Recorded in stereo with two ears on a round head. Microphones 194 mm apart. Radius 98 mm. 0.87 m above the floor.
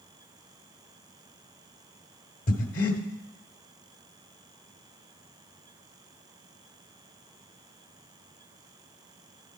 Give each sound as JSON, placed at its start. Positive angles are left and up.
{"t": 2.5, "sound": "breathing", "side_deg": 40, "distance_m": 1.0}